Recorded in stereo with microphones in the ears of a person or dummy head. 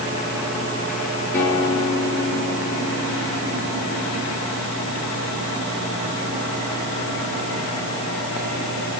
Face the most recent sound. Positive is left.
turn(degrees=20)  # may be behind; listen again after turning